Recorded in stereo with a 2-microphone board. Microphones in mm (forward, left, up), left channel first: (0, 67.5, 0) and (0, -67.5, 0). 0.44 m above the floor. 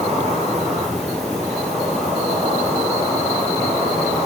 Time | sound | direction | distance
0.0 | an insect | 55° right (ahead or behind) | 7.5 m